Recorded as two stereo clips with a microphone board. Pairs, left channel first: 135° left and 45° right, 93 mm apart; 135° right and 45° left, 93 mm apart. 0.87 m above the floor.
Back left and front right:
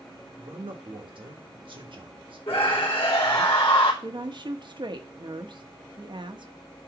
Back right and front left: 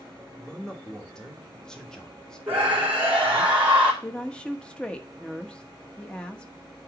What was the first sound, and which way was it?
A man speaking, 55° right.